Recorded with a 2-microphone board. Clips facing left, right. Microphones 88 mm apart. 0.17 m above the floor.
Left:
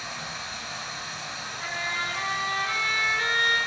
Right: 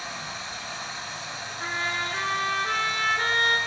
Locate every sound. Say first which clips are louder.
0.0 s running water: right 1 dB; 30° right (ahead or behind), 1.4 m
1.6 s a trumpet: right 2 dB; 60° right (ahead or behind), 0.6 m